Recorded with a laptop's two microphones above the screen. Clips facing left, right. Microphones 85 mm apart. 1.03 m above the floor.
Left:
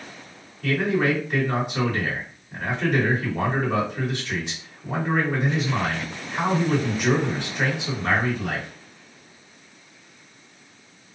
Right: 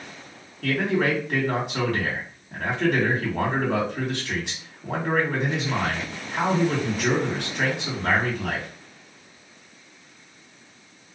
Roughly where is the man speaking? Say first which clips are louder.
Left 1 dB; right.